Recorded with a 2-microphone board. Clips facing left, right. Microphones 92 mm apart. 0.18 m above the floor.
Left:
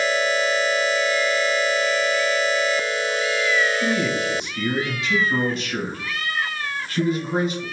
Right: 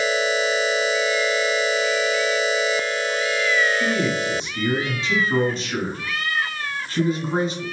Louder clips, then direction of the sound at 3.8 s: Even; 30° right (ahead or behind).